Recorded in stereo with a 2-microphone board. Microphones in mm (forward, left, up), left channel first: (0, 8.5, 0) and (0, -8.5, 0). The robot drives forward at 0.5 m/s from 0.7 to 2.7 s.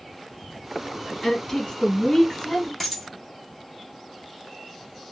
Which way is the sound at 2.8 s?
Centre (ahead or behind).